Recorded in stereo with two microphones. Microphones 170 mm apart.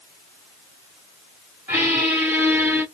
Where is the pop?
I don't hear a pop.